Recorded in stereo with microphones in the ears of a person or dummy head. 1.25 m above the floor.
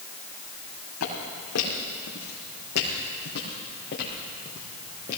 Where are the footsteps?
75° left (ahead or behind), 4 m; by 5.2 s 35° left (ahead or behind), 3.5 m.